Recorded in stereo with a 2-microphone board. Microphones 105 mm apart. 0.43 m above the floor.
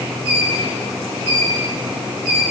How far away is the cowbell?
No cowbell in this recording.